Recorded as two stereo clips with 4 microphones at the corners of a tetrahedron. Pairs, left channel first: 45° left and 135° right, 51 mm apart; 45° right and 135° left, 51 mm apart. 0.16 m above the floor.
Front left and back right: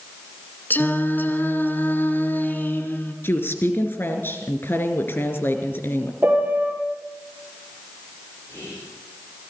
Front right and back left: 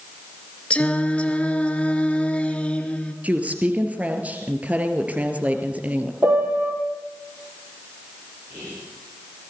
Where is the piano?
175° left, 3.5 m.